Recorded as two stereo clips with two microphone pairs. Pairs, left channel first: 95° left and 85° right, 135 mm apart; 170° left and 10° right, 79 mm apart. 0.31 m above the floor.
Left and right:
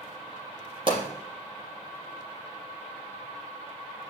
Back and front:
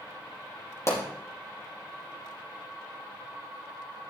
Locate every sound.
0.9 s a pop: 140° right, 4.5 m